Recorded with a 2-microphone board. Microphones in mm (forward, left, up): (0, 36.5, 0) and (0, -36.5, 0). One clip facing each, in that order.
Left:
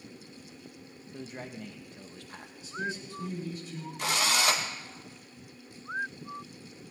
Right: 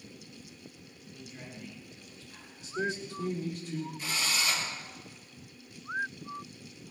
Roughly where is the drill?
Left.